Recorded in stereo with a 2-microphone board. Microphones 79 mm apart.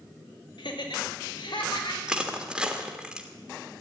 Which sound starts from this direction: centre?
Crushing, at 2.1 s.